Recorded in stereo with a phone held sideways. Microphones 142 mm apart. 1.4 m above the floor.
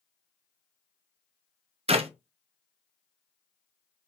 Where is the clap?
45° right (ahead or behind), 0.5 m.